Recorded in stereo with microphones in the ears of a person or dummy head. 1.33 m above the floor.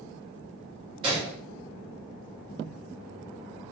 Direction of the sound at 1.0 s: 30° right (ahead or behind).